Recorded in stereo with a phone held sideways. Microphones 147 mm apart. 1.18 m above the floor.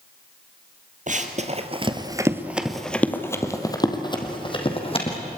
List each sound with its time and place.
1.1 s running footsteps: 55° right (ahead or behind), 2 m; by 5.2 s 40° left (ahead or behind), 4 m